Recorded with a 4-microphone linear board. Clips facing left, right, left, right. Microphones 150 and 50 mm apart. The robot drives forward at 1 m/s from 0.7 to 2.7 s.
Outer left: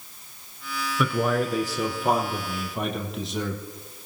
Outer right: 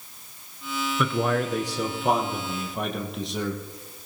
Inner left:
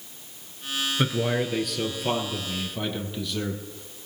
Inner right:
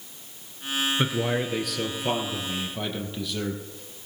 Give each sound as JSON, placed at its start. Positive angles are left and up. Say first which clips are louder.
{"t": 1.0, "sound": "a man speaking", "louder": "outer left 1 dB, inner left 1 dB", "side_deg": 0, "distance_m": 1.1}